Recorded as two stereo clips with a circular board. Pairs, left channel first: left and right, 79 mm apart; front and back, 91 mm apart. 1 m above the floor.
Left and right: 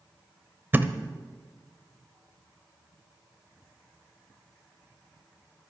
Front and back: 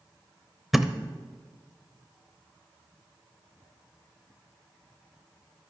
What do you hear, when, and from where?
0.7 s a thud: 95° right, 0.8 m